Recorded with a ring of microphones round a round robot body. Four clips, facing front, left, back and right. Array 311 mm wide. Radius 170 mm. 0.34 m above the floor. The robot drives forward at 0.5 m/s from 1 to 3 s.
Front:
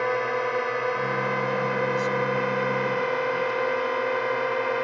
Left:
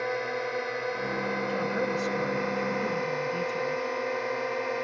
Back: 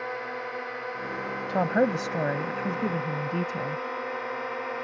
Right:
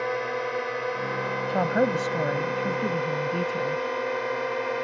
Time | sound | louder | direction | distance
0.0 | a drone | right 2 dB, front 9 dB | 10° right | ?
1.5 | a woman speaking | right 9 dB, back 1 dB | 140° right | ?